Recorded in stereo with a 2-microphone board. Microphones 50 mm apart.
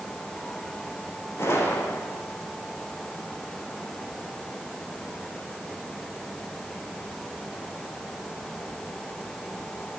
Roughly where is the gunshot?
Left.